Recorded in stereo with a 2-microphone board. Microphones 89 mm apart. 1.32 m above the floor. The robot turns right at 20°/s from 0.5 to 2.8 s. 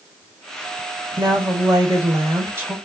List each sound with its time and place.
1.2 s a woman speaking: 50° right, 1.6 m; by 2.8 s 20° right, 1.6 m